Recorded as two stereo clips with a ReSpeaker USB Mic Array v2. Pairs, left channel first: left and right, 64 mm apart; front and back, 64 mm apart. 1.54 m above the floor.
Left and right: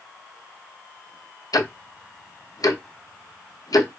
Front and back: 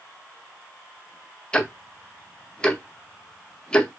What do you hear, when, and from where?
1.5 s ticking: 75° left, 0.5 m